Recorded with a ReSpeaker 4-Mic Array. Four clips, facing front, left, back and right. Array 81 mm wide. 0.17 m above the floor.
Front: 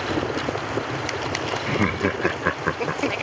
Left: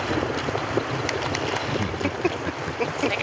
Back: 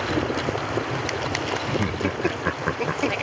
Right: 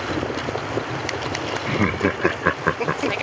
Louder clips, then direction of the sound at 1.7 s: Right 5 dB, front 6 dB; 50° right.